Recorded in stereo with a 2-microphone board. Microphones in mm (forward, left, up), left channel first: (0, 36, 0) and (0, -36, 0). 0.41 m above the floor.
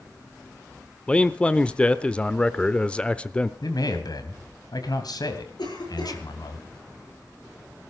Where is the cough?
80° left, 7.5 m.